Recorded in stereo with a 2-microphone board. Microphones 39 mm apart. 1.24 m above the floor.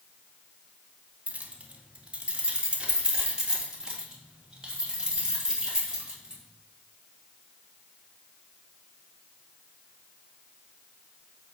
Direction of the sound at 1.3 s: 35° right (ahead or behind).